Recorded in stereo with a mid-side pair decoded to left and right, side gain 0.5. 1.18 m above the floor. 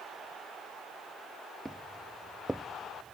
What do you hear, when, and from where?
1.6 s footsteps: 10° right